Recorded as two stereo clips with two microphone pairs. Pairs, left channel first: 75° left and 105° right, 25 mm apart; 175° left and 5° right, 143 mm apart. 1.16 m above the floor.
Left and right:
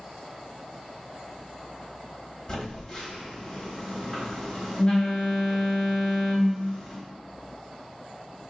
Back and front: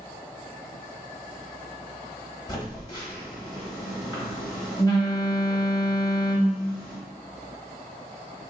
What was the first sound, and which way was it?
A phone buzzing, 135° left.